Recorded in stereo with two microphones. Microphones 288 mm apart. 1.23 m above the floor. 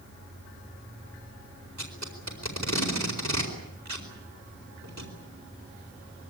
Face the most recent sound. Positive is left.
turn(degrees=-70)  # may be behind; listen again after turning